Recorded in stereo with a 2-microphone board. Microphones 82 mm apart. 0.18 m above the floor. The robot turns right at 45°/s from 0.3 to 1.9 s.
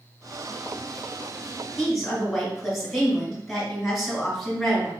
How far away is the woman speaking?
About 1.8 m.